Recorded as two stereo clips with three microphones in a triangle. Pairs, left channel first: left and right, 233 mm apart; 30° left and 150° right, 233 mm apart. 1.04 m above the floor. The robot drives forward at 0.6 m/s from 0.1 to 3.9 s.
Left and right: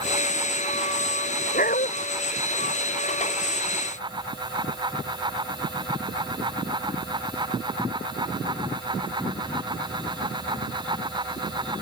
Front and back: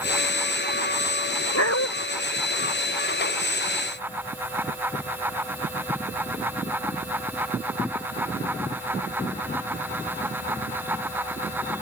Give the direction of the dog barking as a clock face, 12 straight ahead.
11 o'clock.